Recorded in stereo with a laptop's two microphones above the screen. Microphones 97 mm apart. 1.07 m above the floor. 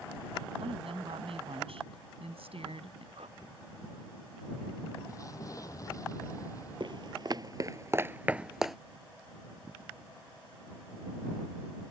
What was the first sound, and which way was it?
A woman speaking, 75° right (ahead or behind).